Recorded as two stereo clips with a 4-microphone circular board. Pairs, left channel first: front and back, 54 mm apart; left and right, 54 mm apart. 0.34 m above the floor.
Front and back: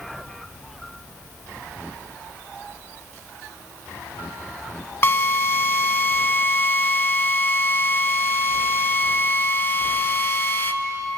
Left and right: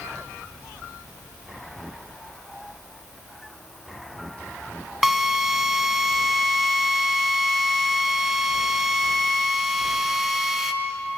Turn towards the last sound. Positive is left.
turn(degrees=-10)